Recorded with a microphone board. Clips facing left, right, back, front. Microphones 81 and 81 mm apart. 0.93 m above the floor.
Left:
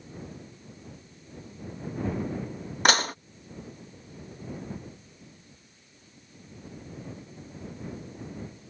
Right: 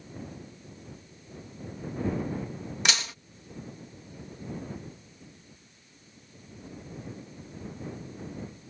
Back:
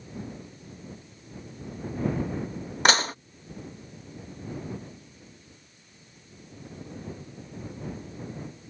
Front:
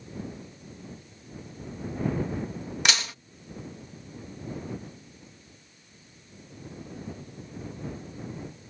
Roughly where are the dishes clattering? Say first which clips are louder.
Left 9 dB, back 8 dB; behind left.